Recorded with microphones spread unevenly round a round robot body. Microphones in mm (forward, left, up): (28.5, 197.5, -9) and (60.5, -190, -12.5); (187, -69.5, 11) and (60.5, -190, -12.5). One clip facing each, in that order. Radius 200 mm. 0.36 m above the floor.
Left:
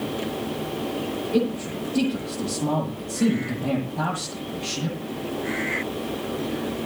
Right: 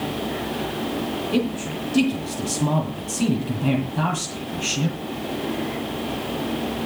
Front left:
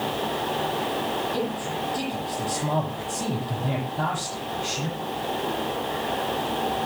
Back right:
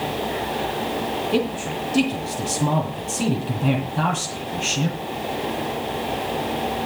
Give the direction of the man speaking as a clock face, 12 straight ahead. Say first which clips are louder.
Left 1 dB, back right 5 dB; 5 o'clock.